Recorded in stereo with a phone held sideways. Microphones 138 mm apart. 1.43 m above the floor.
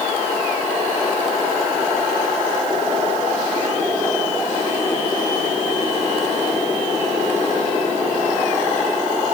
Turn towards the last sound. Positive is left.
No sound to turn to.